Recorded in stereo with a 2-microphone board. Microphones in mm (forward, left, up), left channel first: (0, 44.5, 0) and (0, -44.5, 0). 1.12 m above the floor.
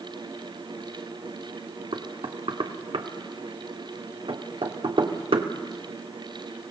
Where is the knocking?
75° right (ahead or behind), 1.8 m.